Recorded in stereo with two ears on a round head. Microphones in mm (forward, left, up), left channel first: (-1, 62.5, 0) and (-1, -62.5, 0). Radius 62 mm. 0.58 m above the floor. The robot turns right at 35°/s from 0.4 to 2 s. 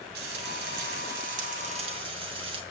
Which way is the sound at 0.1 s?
95° right.